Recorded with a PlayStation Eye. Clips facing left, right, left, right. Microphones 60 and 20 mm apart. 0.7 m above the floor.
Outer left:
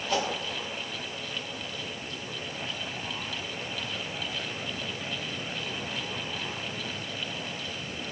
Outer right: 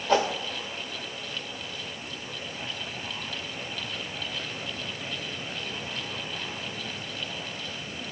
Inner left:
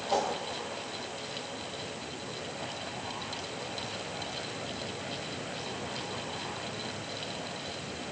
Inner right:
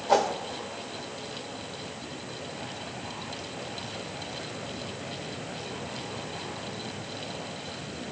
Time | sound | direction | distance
0.1 | a whoosh | 50° right (ahead or behind) | 1.5 m